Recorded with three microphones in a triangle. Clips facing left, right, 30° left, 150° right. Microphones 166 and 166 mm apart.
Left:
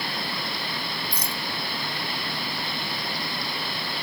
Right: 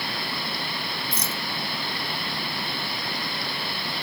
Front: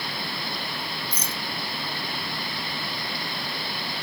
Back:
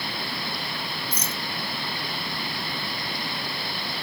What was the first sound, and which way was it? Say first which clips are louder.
A rattle: right 1 dB, back 1 dB; 25° right.